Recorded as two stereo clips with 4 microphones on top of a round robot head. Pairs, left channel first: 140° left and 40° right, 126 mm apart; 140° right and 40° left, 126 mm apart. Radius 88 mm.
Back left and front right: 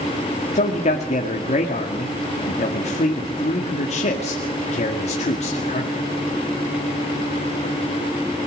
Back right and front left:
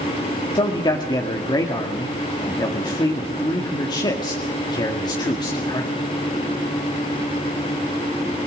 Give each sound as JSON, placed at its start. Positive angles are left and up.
{"t": 0.6, "sound": "a man speaking", "azimuth_deg": 165, "distance_m": 2.0}